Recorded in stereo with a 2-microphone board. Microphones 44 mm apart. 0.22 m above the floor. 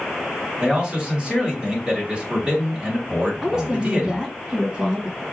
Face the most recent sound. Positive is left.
turn(degrees=-15)  # may be behind; listen again after turning